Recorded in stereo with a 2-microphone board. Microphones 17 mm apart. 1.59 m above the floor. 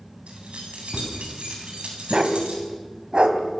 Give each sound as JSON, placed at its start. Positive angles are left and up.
{"t": 0.3, "sound": "keys jangling", "side_deg": -85, "distance_m": 8.5}
{"t": 2.1, "sound": "a dog barking", "side_deg": -55, "distance_m": 2.5}